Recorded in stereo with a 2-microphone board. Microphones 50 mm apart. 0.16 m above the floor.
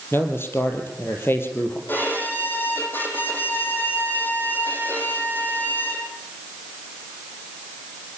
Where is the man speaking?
50° left (ahead or behind), 4 m.